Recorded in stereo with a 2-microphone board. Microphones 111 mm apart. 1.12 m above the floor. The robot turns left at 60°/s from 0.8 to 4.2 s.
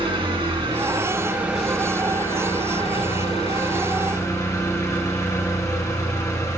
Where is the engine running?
125° right, 3 m; by 6.6 s 30° left, 3 m.